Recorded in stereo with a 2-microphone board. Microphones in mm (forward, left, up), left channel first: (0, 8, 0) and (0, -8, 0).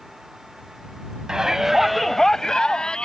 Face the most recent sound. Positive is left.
turn(degrees=60)  # may be behind; listen again after turning